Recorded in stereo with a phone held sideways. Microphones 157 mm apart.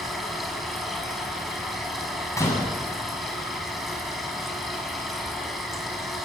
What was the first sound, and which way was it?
A machine running, centre (ahead or behind).